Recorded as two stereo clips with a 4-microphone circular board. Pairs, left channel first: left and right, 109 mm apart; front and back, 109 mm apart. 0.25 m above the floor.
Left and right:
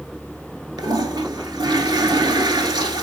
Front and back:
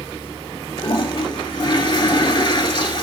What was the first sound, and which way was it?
A toilet flushing, 45° right.